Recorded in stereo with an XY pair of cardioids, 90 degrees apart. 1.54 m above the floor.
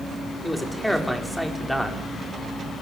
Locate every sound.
0.4 s a man speaking: straight ahead, 5.5 m